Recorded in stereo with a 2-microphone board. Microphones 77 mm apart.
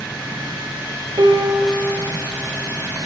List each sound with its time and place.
1.2 s a piano: 70° right (ahead or behind), 4 m